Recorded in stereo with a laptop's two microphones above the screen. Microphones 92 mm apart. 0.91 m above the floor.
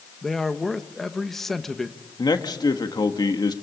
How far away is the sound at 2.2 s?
About 1.5 m.